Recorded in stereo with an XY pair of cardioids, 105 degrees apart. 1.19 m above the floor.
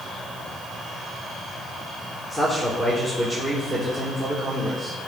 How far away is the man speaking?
About 4 m.